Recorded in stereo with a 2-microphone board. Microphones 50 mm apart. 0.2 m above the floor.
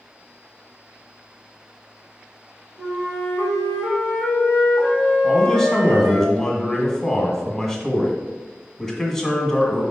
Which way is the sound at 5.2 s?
10° left (ahead or behind).